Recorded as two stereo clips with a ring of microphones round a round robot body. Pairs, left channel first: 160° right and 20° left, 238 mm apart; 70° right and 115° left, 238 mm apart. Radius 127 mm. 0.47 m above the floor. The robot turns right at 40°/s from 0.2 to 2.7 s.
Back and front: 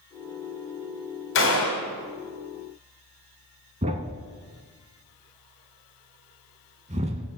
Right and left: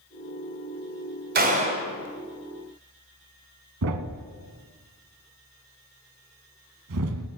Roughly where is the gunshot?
Behind.